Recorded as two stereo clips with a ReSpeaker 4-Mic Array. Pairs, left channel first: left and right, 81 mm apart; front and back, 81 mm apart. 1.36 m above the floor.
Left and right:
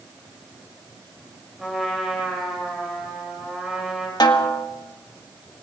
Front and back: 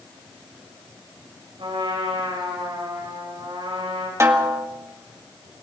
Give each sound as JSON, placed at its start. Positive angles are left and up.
{"t": 1.6, "sound": "a trumpet", "azimuth_deg": 180, "distance_m": 6.0}
{"t": 4.2, "sound": "a snare drum", "azimuth_deg": 125, "distance_m": 1.8}